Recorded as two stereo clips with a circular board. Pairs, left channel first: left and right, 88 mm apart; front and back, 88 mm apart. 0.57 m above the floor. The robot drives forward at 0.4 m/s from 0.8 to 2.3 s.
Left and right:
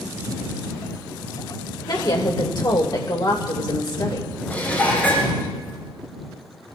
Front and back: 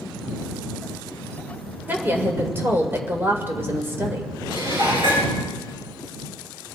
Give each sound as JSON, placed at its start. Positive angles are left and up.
{"t": 1.9, "sound": "a woman speaking", "azimuth_deg": 115, "distance_m": 2.0}
{"t": 4.5, "sound": "dishes clattering", "azimuth_deg": 165, "distance_m": 6.5}